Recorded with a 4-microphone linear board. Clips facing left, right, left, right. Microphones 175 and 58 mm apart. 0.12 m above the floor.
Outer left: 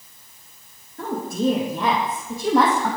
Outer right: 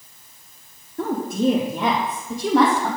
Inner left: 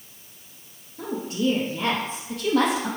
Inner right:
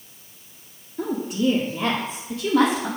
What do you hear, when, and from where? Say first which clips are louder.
1.0 s a woman speaking: outer right 2 dB, inner right 2 dB; 30° right (ahead or behind), 1.9 m; by 2.9 s 10° left (ahead or behind), 3.5 m